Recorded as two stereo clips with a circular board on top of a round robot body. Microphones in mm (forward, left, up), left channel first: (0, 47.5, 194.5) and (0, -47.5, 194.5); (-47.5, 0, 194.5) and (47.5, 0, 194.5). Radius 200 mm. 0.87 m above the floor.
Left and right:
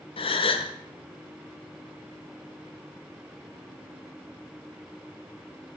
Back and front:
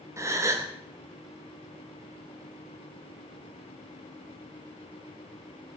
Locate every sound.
0.2 s a gasp: 60° left, 0.6 m